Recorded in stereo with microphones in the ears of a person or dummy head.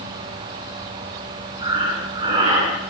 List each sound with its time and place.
1.6 s breathing: 25° right (ahead or behind), 6.5 m